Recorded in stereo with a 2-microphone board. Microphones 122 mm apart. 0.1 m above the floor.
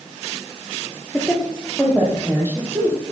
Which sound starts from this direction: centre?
A woman speaking, at 1.1 s.